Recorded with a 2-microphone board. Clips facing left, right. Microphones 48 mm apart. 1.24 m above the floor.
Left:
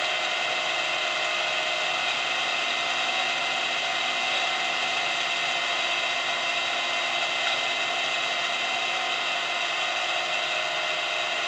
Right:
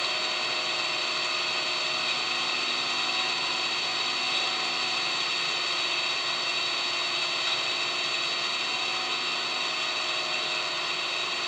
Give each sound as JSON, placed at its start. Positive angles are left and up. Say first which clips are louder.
{"t": 0.0, "sound": "an engine running", "louder": "left 3 dB", "side_deg": 30, "distance_m": 3.0}